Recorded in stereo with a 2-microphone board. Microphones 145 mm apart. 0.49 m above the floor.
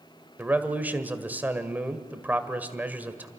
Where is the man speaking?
15° right (ahead or behind), 1.6 m.